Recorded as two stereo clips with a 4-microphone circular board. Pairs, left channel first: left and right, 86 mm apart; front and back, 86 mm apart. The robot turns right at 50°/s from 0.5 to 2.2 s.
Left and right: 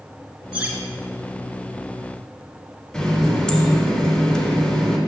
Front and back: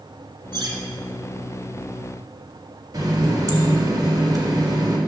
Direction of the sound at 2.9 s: 170° left.